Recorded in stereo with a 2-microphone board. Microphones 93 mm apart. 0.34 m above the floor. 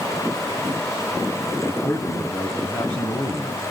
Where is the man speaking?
35° left (ahead or behind), 2.5 m.